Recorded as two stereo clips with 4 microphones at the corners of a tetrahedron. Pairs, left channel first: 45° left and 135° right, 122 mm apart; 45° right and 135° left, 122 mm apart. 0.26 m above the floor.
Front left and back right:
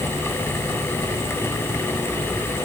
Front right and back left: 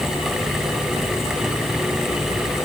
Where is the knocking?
No knocking in this recording.